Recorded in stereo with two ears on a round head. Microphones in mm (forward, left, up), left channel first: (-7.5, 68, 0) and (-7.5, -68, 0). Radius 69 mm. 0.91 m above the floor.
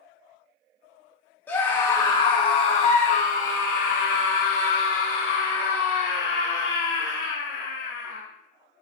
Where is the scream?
10° left (ahead or behind), 1.5 m; by 8.2 s 70° left (ahead or behind), 3.5 m.